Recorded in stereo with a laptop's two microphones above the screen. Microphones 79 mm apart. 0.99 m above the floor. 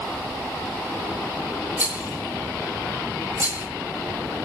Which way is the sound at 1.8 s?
20° right (ahead or behind).